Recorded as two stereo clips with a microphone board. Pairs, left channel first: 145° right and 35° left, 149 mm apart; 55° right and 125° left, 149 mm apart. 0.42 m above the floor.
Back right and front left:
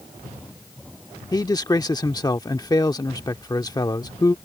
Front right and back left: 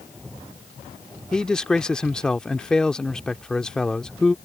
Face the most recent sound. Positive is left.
turn(degrees=-135)